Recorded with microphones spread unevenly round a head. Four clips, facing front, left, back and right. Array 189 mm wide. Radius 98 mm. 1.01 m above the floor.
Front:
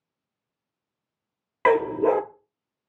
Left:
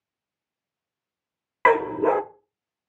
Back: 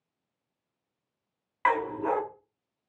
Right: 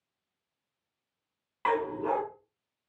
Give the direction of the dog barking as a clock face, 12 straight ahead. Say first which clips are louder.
Left 9 dB, front 7 dB; 11 o'clock.